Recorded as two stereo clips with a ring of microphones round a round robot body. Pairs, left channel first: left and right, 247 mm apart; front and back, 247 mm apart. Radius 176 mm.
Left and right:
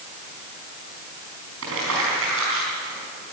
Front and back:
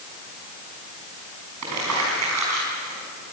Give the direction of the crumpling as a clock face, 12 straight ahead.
5 o'clock.